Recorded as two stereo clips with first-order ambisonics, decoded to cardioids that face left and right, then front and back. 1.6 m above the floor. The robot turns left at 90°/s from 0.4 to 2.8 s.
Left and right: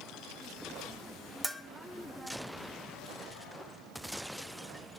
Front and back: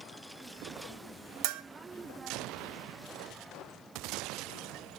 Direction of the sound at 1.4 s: 175° right.